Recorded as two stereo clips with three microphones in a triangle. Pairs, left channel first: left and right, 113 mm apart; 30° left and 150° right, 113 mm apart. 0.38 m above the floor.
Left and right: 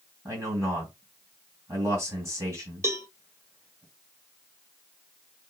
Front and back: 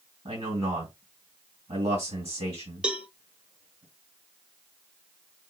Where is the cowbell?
80° right, 0.7 m.